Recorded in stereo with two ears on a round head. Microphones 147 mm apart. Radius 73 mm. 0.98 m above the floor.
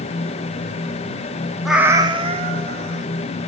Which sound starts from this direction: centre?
A cat meowing, at 1.6 s.